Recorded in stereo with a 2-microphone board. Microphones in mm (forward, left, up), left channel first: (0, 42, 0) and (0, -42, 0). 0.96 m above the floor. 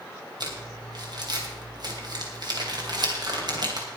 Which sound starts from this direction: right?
Crumpling, at 0.4 s.